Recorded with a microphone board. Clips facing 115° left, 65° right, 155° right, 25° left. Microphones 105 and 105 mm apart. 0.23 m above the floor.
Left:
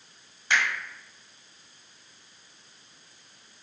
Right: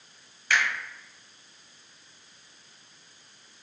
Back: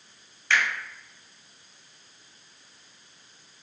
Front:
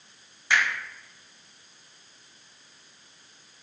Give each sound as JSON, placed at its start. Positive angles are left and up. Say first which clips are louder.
{"t": 0.5, "sound": "a finger snap", "louder": "even, even", "azimuth_deg": 80, "distance_m": 1.1}